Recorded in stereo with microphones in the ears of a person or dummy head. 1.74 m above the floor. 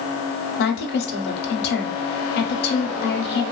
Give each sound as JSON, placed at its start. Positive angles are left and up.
{"t": 0.6, "sound": "a woman speaking", "side_deg": 55, "distance_m": 0.7}